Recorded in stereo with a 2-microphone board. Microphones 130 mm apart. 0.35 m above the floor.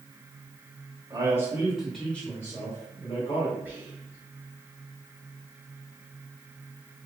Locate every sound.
1.1 s a man speaking: 30° right (ahead or behind), 1.5 m; by 3.5 s 45° left (ahead or behind), 2 m
3.6 s whispering: 15° right (ahead or behind), 1.5 m